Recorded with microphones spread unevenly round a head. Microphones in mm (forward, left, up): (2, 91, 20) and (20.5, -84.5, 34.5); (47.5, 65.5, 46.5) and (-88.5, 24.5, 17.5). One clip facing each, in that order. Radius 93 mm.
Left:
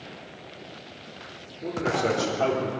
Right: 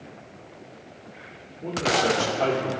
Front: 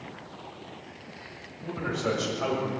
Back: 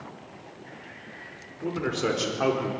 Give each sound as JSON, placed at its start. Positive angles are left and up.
{"t": 1.6, "sound": "a man speaking", "azimuth_deg": 180, "distance_m": 5.0}